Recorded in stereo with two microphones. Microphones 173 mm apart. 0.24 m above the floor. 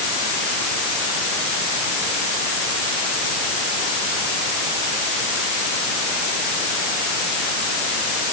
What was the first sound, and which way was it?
Only background noise.